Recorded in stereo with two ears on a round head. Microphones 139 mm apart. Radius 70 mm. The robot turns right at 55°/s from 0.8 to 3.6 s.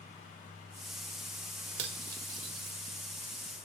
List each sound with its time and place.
1.8 s cutlery clinking: 75° right (ahead or behind), 1.4 m; by 2.8 s 25° right (ahead or behind), 1.4 m